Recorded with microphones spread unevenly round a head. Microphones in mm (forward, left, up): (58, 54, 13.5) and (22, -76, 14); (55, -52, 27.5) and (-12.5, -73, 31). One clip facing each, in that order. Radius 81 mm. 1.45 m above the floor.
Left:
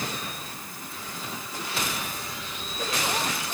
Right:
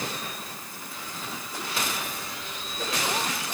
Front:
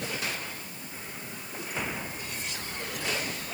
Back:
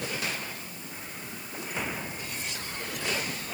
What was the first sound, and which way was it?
Only background noise.